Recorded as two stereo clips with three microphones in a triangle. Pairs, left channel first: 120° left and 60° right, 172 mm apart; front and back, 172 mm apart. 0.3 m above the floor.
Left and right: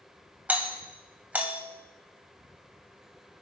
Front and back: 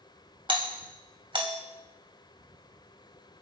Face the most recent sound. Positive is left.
turn(degrees=-135)